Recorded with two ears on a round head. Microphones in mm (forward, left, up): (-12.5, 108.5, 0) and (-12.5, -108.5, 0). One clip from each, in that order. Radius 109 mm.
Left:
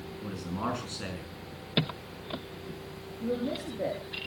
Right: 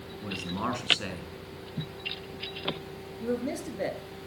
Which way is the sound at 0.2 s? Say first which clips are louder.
Right 2 dB; 20° right (ahead or behind).